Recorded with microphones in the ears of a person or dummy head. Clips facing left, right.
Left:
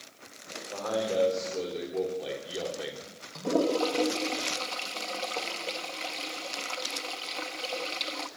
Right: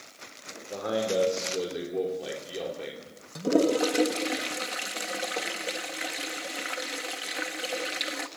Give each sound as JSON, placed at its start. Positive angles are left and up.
{"t": 0.7, "sound": "a man speaking", "side_deg": -35, "distance_m": 4.0}
{"t": 3.4, "sound": "a toilet flushing", "side_deg": -15, "distance_m": 1.4}